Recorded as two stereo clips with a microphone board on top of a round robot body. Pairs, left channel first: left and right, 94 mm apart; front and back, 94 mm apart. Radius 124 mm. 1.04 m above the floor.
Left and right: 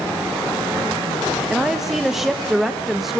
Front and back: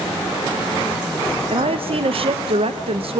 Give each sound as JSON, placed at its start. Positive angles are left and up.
{"t": 1.5, "sound": "a woman speaking", "azimuth_deg": -175, "distance_m": 1.2}